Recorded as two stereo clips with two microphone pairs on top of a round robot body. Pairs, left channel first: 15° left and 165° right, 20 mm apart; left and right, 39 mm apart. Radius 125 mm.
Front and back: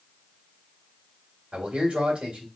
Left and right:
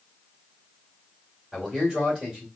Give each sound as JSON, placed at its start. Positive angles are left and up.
{"t": 1.5, "sound": "a man speaking", "azimuth_deg": -160, "distance_m": 2.0}